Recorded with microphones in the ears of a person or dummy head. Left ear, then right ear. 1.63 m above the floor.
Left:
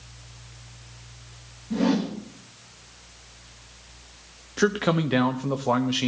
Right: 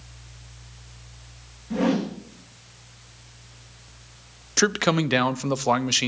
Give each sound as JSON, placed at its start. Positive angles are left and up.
{"t": 1.7, "sound": "a whoosh", "side_deg": -25, "distance_m": 1.9}
{"t": 4.6, "sound": "a man speaking", "side_deg": -80, "distance_m": 0.7}